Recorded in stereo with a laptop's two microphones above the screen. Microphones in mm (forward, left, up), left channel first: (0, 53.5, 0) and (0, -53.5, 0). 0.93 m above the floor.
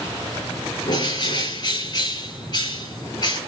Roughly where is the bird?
Left.